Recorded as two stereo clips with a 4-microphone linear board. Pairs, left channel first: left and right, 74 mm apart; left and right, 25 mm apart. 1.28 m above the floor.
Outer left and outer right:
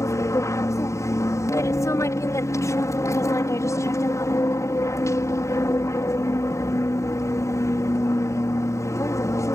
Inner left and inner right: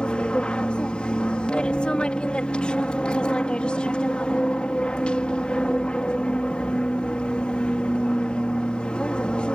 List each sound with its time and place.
0.0 s an aircraft: 50° left (ahead or behind)